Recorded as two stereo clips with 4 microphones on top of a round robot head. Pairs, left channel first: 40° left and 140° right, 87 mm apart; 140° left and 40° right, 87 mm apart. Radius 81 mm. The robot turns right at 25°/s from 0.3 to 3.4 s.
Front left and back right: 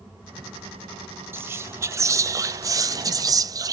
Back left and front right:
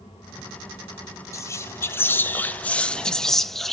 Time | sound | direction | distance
1.3 | whispering | 170° left | 0.6 m